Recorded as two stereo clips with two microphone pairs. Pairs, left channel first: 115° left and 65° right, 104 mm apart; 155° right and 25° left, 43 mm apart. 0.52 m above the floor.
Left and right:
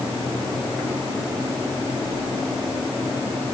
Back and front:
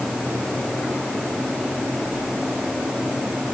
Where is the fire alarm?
I don't hear a fire alarm.